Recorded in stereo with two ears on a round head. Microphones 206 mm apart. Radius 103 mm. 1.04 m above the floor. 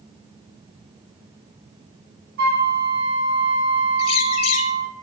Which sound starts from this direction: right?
A flute, at 2.4 s.